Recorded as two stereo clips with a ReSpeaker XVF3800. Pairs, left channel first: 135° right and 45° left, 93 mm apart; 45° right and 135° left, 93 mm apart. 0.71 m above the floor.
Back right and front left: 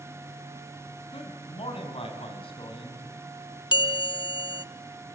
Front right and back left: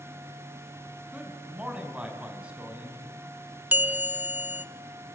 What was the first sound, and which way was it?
A man speaking, 145° right.